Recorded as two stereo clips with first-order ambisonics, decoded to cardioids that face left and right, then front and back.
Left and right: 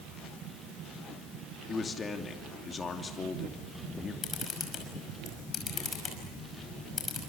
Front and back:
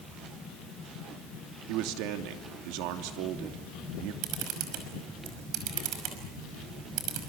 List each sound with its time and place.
1.7 s a man speaking: 160° left, 2.5 m
4.2 s a camera shutter: 160° left, 5.5 m